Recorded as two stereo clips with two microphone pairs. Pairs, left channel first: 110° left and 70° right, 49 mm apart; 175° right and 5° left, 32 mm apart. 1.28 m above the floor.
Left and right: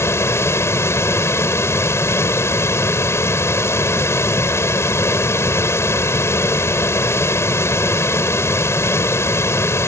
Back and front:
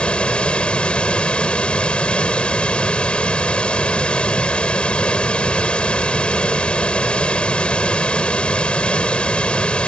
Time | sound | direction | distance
0.0 | running water | 130° left | ?